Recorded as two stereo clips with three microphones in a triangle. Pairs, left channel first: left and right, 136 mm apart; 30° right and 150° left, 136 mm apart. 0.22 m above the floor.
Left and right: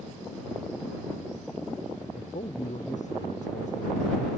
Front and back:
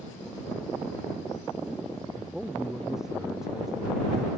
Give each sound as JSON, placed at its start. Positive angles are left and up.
{"t": 2.1, "sound": "a man speaking", "azimuth_deg": 65}